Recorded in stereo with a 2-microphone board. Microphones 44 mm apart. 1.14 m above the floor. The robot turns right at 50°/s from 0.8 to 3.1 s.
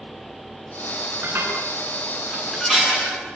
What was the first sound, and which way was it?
Dishes clattering, 60° right (ahead or behind).